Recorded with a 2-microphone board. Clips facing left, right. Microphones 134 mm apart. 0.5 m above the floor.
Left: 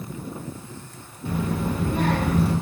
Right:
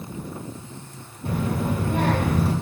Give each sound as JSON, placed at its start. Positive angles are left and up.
{"t": 1.2, "sound": "a child speaking", "side_deg": -65, "distance_m": 1.1}